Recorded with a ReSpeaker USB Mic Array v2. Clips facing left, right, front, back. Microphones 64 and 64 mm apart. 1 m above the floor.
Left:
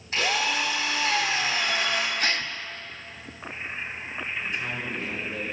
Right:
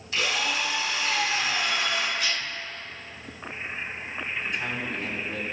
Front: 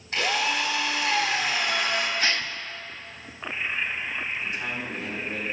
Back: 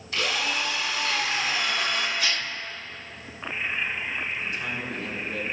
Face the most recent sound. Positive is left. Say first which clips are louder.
# right 1 dB, even
turn(degrees=-60)